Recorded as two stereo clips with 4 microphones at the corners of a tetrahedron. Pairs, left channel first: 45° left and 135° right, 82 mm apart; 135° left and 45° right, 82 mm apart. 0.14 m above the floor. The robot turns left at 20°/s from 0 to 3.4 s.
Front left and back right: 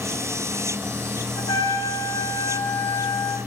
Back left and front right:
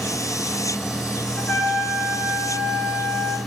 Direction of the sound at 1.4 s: 55° left.